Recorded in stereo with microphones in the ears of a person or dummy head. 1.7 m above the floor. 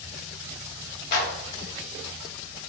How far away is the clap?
About 0.6 m.